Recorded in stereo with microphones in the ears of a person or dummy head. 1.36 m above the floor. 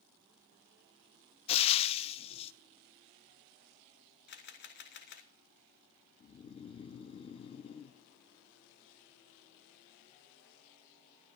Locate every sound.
1.5 s frying: 30° left (ahead or behind), 0.6 m
4.3 s a camera shutter: 50° left (ahead or behind), 1.1 m
6.2 s snoring: 30° left (ahead or behind), 0.5 m